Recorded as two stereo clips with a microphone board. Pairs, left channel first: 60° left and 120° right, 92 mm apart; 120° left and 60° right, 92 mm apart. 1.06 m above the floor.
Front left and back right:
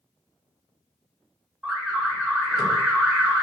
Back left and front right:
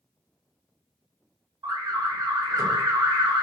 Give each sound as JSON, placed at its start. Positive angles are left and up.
{"t": 1.6, "sound": "an alarm", "azimuth_deg": -50, "distance_m": 1.2}